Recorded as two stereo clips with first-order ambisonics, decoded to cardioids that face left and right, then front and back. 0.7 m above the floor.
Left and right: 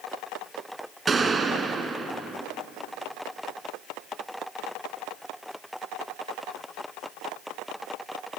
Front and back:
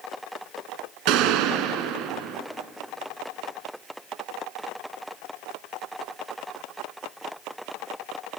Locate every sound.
1.1 s a gunshot: 160° right, 1.4 m